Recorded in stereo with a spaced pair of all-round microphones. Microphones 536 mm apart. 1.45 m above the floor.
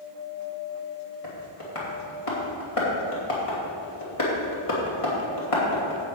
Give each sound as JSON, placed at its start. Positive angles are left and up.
{"t": 1.2, "sound": "tapping", "side_deg": 80, "distance_m": 2.5}